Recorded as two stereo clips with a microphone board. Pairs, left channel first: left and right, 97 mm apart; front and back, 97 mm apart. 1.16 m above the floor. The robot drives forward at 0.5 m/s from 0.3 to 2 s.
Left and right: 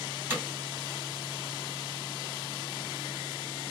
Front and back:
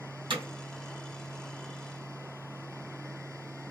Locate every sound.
0.3 s hammering: 155° right, 2.0 m